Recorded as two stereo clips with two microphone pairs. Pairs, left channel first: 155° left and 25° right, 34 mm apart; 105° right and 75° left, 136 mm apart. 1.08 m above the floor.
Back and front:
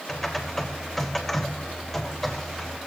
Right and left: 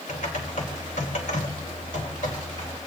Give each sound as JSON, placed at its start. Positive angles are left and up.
{"t": 0.1, "sound": "typing on a keyboard", "azimuth_deg": -120, "distance_m": 2.0}